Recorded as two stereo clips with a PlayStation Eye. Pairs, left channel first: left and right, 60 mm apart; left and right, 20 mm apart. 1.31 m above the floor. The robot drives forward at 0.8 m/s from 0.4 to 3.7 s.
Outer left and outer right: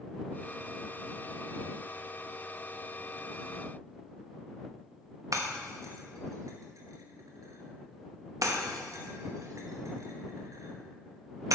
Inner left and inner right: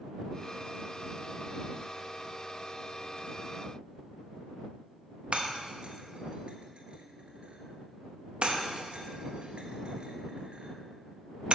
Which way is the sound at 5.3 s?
65° right (ahead or behind).